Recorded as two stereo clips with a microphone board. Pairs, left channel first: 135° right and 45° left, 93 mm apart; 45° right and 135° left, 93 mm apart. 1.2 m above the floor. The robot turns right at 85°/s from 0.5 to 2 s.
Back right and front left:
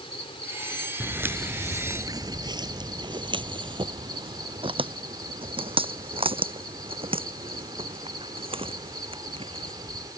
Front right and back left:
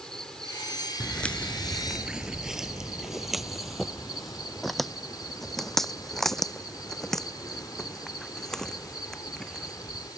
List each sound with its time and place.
0.0 s an insect: 125° right; by 10.2 s straight ahead
1.0 s footsteps: 20° left; by 10.1 s 40° left